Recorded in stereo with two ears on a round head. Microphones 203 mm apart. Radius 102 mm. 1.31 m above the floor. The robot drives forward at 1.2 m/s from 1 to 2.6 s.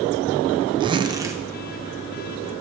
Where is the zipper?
20° right (ahead or behind), 0.6 m; by 1.4 s 10° right (ahead or behind), 1.1 m.